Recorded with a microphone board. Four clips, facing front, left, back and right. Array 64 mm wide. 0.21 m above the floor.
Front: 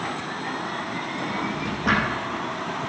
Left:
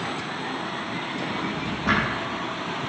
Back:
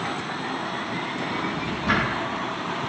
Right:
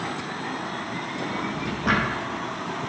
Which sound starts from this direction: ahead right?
A drawer, at 1.2 s.